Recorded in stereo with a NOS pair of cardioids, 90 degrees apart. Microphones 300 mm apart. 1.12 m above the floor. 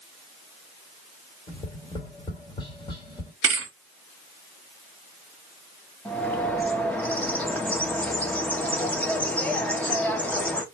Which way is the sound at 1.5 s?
15° left.